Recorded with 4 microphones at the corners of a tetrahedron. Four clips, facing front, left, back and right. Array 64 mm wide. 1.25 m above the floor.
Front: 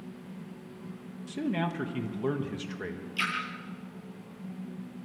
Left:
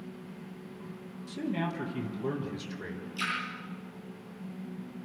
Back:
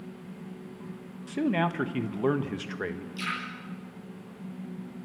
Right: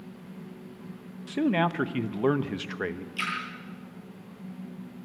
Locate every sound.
1.3 s a man speaking: 120° right, 1.4 m
3.2 s a splash: 35° right, 10 m